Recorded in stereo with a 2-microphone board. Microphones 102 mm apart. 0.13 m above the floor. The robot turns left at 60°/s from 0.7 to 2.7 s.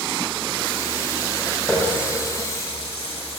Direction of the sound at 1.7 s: 170° left.